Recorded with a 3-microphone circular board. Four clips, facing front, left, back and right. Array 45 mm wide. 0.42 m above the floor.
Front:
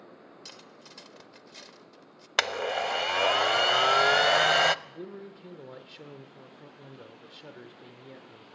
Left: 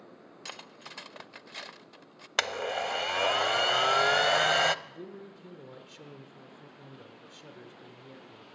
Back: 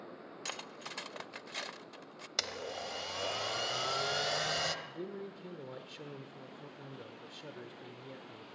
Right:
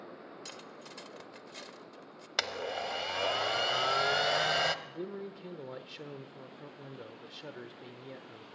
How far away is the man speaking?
About 1.0 m.